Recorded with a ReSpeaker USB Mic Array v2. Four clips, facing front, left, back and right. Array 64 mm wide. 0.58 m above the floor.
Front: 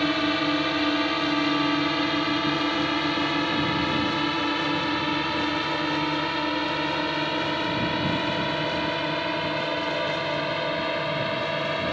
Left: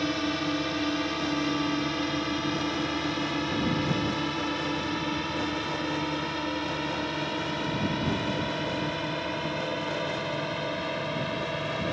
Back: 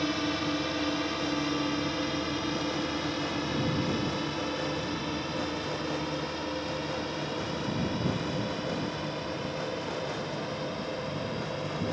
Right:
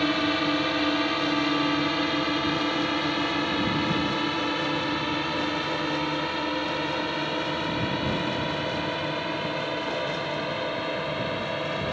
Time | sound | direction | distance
0.0 | a drone | 30° right | ?